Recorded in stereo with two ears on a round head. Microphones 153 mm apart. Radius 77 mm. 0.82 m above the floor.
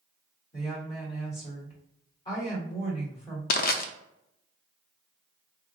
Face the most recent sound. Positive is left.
turn(degrees=60)  # may be behind; listen again after turning